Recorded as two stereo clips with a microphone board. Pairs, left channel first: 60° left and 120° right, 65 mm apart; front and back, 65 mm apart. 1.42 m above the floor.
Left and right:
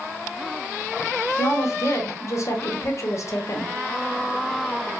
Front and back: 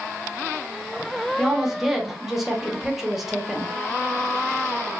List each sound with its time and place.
1.4 s a woman speaking: 95° left, 0.8 m